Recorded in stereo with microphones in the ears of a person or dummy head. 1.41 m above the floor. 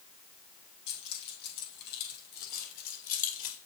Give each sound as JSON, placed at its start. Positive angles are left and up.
{"t": 0.9, "sound": "keys jangling", "side_deg": 60, "distance_m": 6.0}